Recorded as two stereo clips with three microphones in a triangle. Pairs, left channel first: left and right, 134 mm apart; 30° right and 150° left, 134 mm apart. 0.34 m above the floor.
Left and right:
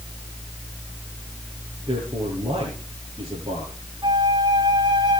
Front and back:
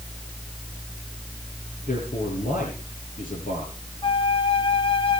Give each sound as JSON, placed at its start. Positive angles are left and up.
{"t": 1.9, "sound": "a man speaking", "azimuth_deg": -30, "distance_m": 6.5}
{"t": 4.0, "sound": "a flute", "azimuth_deg": -55, "distance_m": 1.7}